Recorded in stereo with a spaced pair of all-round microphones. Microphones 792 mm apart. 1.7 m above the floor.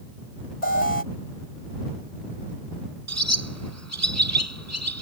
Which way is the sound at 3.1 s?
20° right (ahead or behind).